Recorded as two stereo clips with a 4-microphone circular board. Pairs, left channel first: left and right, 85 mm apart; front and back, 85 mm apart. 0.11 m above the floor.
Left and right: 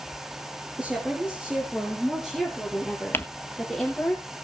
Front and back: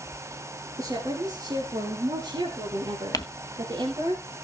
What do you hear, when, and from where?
0.8 s a woman speaking: 165° right, 2.5 m; by 4.1 s 175° left, 4 m
3.1 s crumpling: 30° left, 0.8 m